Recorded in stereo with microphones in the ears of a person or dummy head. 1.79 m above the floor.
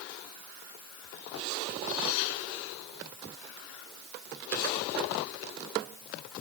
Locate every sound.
Only background noise.